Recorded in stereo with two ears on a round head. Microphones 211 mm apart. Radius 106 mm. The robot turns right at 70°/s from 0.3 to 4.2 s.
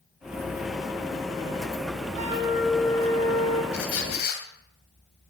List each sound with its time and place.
2.1 s a flute: 35° right, 4 m; by 3.6 s 70° left, 4 m
3.7 s a squeak: 105° left, 2.5 m; by 4.4 s 135° left, 2.5 m